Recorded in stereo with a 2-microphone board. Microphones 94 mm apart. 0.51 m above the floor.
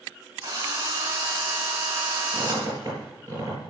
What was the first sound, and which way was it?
A drill, 35° right (ahead or behind).